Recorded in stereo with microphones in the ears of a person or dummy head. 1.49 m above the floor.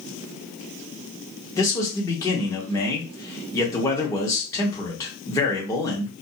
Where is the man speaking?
20° left (ahead or behind), 1.1 m.